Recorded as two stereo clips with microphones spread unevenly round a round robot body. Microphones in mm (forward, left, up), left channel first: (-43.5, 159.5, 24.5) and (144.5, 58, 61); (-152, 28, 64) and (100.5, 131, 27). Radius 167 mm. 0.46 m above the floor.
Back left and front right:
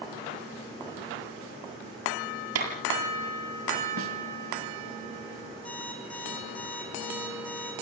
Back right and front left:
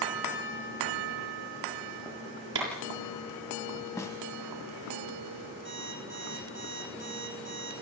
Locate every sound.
2.5 s a clap: 30° right, 8 m
4.0 s a snare drum: 75° right, 2.5 m
5.7 s an alarm clock: 70° left, 10 m